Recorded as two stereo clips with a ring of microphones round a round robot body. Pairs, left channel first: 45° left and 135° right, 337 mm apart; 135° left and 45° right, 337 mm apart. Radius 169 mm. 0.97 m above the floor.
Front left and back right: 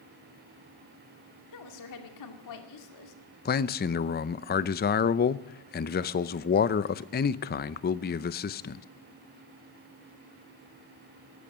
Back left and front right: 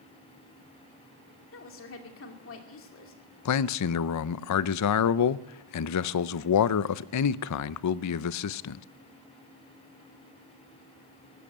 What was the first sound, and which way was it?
A woman speaking, 80° left.